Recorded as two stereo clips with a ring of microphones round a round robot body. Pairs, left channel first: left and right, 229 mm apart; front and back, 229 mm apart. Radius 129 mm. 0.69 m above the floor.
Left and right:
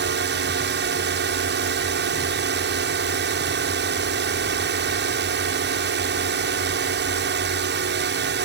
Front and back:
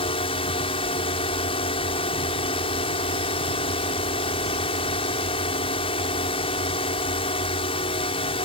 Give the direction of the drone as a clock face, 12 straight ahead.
2 o'clock.